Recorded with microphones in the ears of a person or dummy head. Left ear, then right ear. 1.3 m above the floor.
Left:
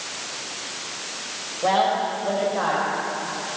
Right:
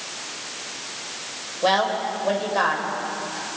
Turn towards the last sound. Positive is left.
turn(degrees=-70)  # may be behind; listen again after turning